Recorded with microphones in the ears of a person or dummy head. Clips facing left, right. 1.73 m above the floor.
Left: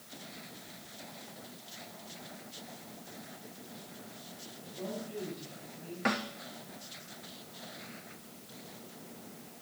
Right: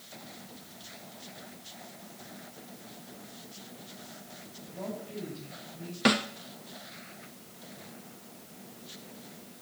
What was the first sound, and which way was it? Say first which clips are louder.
A woman speaking: right 1 dB; 80° right.